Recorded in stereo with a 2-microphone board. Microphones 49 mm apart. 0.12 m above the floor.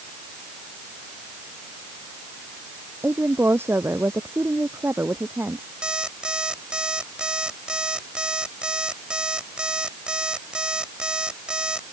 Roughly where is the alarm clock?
Centre.